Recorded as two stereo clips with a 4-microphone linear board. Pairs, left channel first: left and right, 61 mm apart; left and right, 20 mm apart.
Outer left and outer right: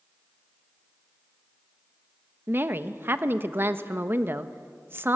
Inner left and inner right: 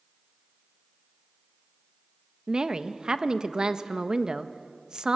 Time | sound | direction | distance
2.5 | a woman speaking | 40° right (ahead or behind) | 1.0 m